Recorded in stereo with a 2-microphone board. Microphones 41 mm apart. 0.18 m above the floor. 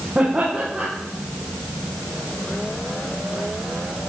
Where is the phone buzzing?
No phone buzzing in this recording.